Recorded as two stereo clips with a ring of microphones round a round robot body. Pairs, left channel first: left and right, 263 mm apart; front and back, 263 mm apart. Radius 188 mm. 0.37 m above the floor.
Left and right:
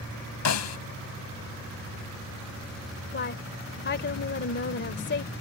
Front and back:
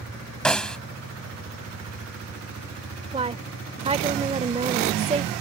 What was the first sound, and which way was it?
A snare drum, 85° left.